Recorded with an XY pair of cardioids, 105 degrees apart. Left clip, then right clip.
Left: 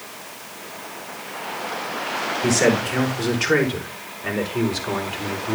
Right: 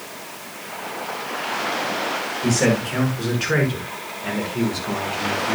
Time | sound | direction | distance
2.4 | a man speaking | 15° left | 6 m